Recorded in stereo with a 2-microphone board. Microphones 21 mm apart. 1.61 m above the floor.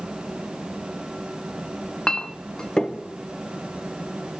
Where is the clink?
35° left (ahead or behind), 0.7 m.